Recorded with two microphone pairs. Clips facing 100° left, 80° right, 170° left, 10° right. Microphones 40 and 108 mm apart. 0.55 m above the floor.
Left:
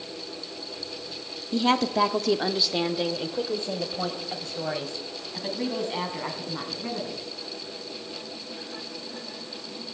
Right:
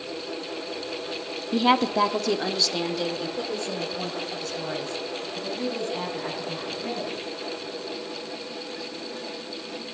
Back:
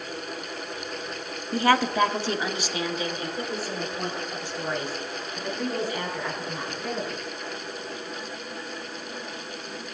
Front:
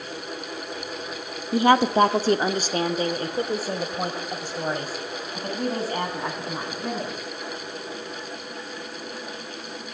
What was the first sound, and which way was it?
A woman speaking, 70° right.